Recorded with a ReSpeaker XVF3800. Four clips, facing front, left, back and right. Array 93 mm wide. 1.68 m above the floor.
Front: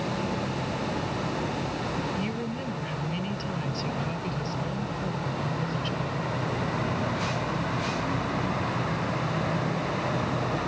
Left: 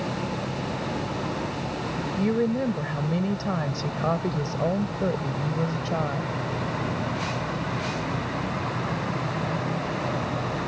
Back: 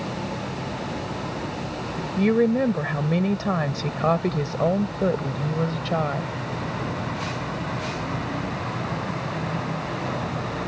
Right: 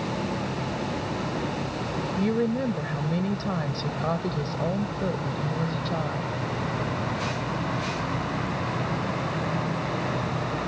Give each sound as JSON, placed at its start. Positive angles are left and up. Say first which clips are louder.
{"t": 2.2, "sound": "a woman speaking", "louder": "left 1 dB, back 12 dB", "azimuth_deg": 175}